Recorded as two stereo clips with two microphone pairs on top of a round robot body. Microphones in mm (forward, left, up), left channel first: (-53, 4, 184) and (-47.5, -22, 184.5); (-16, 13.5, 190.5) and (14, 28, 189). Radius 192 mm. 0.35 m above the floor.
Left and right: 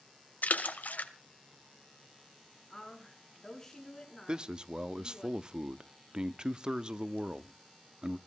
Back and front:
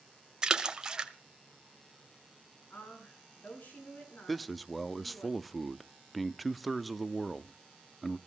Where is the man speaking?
60° right, 1.0 m.